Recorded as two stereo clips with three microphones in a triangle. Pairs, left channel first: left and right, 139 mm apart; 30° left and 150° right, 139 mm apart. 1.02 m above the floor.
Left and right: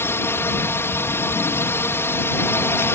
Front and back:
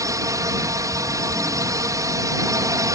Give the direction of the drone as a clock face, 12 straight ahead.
7 o'clock.